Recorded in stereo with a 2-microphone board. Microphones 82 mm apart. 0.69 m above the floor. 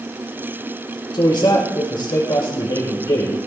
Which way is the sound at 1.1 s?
70° left (ahead or behind).